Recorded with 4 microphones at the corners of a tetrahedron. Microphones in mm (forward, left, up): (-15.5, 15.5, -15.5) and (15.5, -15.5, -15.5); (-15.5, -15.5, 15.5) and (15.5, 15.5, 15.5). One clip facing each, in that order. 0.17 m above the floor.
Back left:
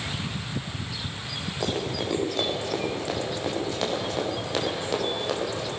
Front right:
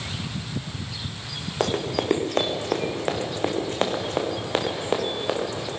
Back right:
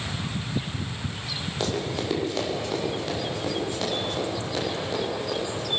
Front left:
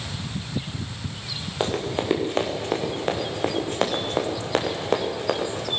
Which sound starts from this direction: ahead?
Running footsteps, at 1.6 s.